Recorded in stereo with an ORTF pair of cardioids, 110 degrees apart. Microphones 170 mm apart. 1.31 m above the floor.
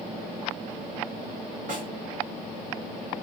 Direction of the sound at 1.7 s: 55° right.